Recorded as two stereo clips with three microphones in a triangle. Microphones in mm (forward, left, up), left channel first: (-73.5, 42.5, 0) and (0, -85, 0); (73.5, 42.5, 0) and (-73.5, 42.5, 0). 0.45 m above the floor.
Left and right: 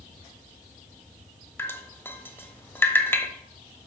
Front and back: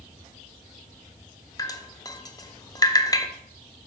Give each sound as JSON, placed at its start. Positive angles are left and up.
{"t": 1.6, "sound": "dripping", "azimuth_deg": 55, "distance_m": 0.6}